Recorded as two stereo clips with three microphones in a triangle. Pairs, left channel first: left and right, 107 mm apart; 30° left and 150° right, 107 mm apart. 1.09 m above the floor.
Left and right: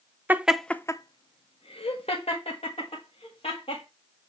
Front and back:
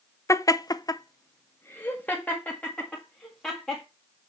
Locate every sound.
0.3 s laughter: 25° right, 0.6 m; by 3.9 s 110° left, 2.5 m